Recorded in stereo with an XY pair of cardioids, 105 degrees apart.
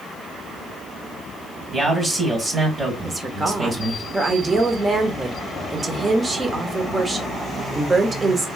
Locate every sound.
1.7 s a man speaking: 20° right, 2 m
3.0 s a woman speaking: 25° right, 1.1 m